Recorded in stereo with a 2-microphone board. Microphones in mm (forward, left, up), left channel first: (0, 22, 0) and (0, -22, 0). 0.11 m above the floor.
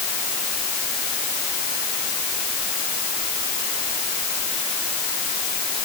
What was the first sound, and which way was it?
Only background noise.